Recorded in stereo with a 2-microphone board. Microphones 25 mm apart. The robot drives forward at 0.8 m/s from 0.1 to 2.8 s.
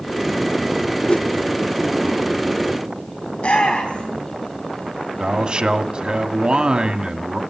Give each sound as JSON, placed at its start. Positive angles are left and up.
{"t": 1.1, "sound": "a whoosh", "side_deg": 55, "distance_m": 0.5}
{"t": 3.3, "sound": "a shout", "side_deg": 70, "distance_m": 4.5}
{"t": 5.2, "sound": "a man speaking", "side_deg": -45, "distance_m": 1.2}